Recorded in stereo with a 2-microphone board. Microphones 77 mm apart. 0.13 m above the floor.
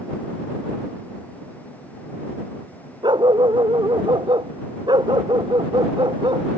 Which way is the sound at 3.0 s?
85° right.